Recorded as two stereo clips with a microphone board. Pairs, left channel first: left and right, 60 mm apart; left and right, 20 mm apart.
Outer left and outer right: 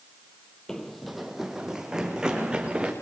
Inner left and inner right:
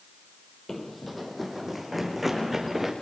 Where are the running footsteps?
10° left (ahead or behind), 1.2 m; by 2.9 s 10° right (ahead or behind), 4 m.